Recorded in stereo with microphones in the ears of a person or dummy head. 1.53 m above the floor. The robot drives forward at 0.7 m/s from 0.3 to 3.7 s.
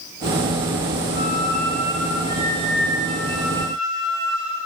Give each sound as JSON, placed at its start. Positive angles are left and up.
{"t": 1.1, "sound": "a flute", "side_deg": 30, "distance_m": 1.1}